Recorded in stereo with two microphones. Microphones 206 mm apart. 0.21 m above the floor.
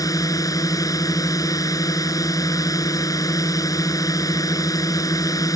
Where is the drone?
15° left (ahead or behind).